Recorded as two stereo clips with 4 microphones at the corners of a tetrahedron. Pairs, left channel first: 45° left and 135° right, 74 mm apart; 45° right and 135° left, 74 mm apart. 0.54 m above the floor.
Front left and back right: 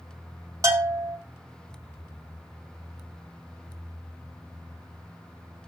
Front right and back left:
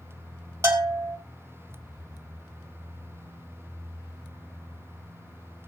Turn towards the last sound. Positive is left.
turn(degrees=-175)